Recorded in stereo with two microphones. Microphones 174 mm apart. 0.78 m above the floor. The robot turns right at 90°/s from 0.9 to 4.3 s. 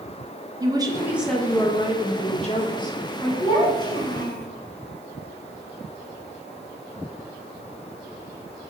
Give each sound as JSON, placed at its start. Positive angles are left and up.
{"t": 0.6, "sound": "a woman speaking", "azimuth_deg": -35, "distance_m": 0.8}
{"t": 3.4, "sound": "a child speaking", "azimuth_deg": 5, "distance_m": 1.5}